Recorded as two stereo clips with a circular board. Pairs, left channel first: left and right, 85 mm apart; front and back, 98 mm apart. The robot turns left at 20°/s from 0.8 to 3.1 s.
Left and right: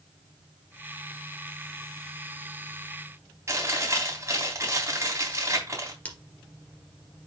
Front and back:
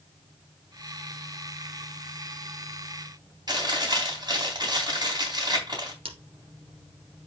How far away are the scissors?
About 2.5 m.